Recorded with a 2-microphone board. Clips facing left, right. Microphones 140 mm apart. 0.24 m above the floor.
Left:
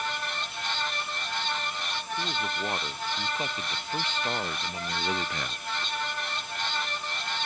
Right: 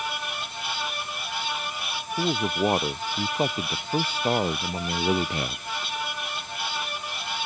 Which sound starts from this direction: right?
A man speaking, at 2.2 s.